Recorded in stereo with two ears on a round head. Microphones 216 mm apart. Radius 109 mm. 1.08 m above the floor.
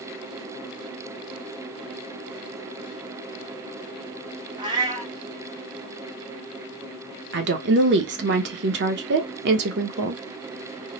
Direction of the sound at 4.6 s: 20° right (ahead or behind).